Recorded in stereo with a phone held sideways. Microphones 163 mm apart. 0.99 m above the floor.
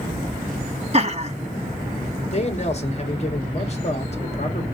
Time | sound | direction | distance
0.9 | laughter | 40° right (ahead or behind) | 1.2 m
2.3 | a man speaking | 40° left (ahead or behind) | 1.5 m